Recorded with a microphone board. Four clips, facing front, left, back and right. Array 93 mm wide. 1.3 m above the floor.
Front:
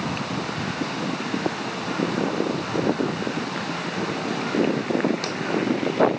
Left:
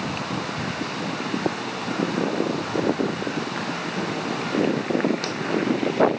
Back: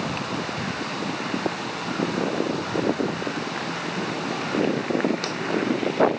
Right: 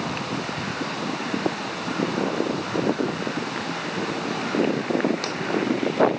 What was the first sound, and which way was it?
Only background noise.